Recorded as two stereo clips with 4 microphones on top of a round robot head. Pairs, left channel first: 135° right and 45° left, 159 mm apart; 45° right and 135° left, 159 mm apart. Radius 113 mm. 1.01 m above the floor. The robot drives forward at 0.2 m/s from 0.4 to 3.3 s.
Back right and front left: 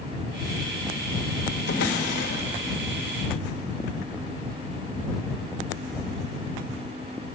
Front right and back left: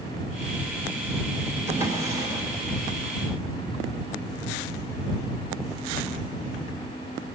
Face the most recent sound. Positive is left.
turn(degrees=-155)